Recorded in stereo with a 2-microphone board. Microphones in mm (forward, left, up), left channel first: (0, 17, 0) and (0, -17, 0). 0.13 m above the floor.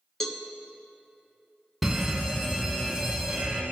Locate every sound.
0.2 s a cowbell: 10° left (ahead or behind), 1.0 m
1.8 s a fire alarm: 5° right (ahead or behind), 2 m